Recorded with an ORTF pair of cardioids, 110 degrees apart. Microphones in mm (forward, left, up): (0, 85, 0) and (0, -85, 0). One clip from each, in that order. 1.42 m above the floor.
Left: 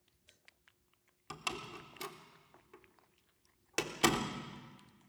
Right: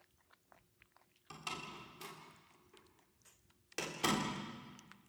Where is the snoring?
I don't hear snoring.